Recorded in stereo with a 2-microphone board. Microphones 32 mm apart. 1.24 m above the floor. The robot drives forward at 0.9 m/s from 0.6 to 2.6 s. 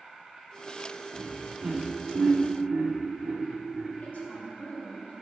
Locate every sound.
0.0 s an insect: 30° right (ahead or behind), 3 m; by 5.2 s 20° right (ahead or behind), 5 m
1.1 s laughter: 70° right (ahead or behind), 2.5 m; by 3.9 s 80° right, 2.5 m
4.0 s a woman speaking: 65° left (ahead or behind), 3.5 m